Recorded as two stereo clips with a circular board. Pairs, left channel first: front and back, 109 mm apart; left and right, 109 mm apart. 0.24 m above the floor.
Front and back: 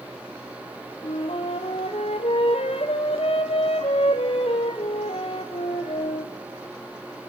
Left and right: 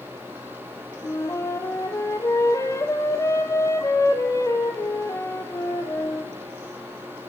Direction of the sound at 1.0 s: 30° left.